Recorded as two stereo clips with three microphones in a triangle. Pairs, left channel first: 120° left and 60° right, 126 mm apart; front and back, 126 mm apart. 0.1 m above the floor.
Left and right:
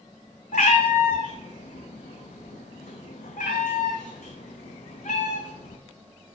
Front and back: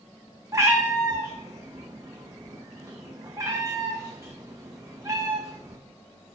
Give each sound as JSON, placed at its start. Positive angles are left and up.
{"t": 0.5, "sound": "a cat meowing", "azimuth_deg": 115, "distance_m": 0.7}